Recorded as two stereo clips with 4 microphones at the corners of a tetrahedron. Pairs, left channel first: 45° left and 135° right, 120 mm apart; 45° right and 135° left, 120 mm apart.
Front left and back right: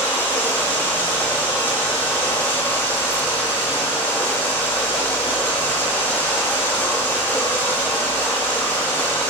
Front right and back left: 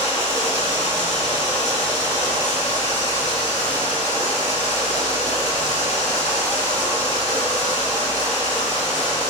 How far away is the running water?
About 3.5 m.